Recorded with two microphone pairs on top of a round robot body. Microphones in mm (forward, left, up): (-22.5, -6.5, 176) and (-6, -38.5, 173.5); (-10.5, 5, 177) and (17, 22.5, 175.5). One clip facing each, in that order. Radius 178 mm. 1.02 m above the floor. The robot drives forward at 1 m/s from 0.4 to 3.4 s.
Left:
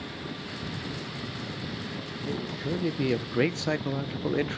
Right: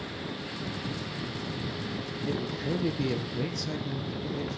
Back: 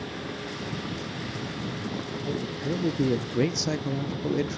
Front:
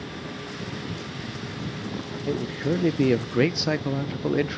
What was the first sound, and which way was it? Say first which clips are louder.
A man speaking: even, front 5 dB; 25° left.